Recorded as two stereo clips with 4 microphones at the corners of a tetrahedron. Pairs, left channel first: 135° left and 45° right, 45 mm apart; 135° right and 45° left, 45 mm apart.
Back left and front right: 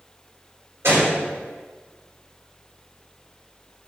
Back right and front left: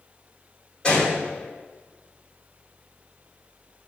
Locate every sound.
0.8 s a gunshot: 65° right, 2.5 m